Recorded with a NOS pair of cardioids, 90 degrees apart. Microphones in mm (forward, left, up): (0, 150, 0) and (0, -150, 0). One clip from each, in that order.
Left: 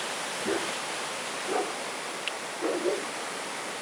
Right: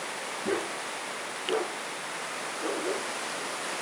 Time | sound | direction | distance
0.5 | a dog barking | 15° right | 4 m